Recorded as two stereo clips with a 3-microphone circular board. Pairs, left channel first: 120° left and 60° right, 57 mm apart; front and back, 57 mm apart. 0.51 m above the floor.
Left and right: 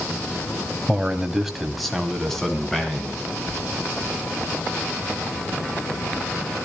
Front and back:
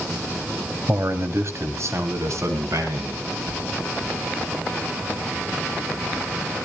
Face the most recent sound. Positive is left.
turn(degrees=-160)